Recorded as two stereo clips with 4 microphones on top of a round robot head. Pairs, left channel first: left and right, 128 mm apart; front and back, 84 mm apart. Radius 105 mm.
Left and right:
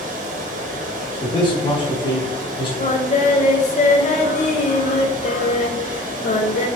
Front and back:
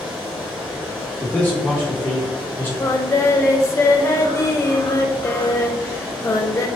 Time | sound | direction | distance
0.0 | running water | 95° right | 0.8 m
1.2 | a man speaking | 60° left | 1.1 m
2.8 | singing | 60° left | 0.6 m